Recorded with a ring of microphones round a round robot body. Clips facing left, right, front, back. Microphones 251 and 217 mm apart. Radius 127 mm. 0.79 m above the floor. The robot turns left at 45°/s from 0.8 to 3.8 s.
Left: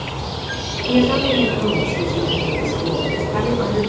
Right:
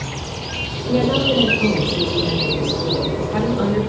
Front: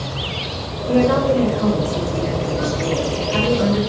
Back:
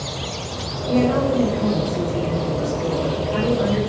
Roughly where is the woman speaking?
Ahead left.